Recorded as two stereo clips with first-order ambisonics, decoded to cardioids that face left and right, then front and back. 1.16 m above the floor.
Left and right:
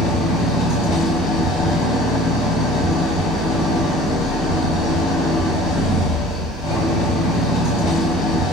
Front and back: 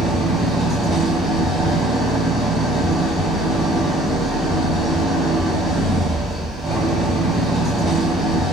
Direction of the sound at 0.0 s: 100° left.